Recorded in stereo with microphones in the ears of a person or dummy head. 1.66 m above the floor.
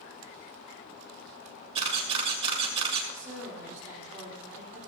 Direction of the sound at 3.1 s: 15° right (ahead or behind).